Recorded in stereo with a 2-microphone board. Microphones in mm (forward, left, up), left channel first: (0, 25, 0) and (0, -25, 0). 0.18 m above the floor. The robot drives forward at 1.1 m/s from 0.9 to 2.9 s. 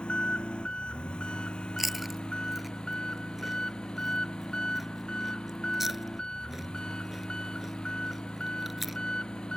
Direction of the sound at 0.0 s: 20° left (ahead or behind).